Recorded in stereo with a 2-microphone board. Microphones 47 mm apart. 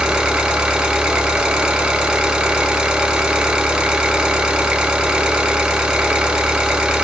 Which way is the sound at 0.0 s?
20° right (ahead or behind).